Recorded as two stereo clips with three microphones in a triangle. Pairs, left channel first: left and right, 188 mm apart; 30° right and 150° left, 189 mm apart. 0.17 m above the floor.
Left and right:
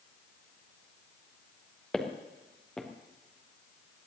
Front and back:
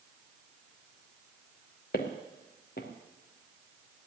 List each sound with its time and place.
1.9 s footsteps: 5° left, 3 m